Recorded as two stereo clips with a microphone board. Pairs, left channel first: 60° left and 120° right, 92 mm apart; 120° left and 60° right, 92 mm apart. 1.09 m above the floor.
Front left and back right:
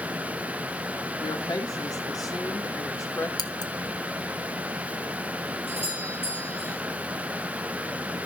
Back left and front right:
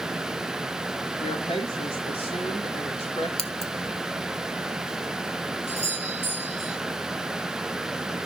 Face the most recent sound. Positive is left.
turn(degrees=-135)